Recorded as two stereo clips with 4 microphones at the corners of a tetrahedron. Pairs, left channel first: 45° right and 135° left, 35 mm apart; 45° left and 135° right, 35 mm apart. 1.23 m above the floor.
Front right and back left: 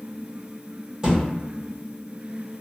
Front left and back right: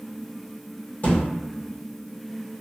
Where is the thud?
65° left, 1.3 m.